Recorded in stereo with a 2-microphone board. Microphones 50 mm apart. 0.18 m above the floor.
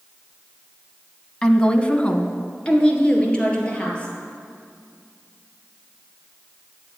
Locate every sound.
1.4 s a woman speaking: 15° left (ahead or behind), 1.0 m; by 4.1 s 20° left (ahead or behind), 3.5 m